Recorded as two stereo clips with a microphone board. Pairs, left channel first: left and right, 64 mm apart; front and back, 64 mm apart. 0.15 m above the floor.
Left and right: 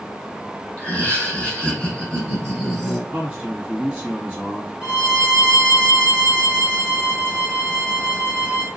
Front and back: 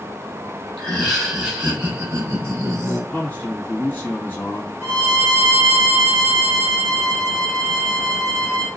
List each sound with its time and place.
0.8 s laughter: 60° left, 1.3 m; by 3.0 s straight behind, 1.6 m
3.1 s a man speaking: 40° right, 1.9 m
4.8 s a violin: 155° right, 1.6 m